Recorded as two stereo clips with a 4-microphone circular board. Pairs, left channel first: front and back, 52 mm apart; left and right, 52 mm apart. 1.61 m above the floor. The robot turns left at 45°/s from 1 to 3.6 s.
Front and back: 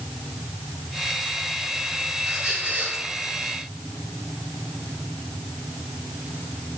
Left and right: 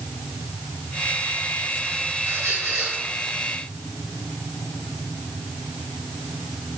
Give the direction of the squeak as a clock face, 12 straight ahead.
3 o'clock.